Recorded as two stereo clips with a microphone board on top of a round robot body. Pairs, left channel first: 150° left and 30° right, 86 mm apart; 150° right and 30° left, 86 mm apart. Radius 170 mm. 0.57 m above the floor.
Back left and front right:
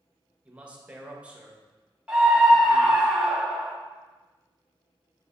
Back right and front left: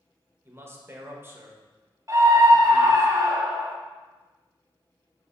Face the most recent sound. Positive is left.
turn(degrees=50)